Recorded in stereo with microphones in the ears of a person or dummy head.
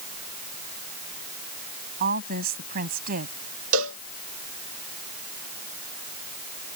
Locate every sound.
2.0 s a woman speaking: 45° right (ahead or behind)
3.7 s a cowbell: 80° right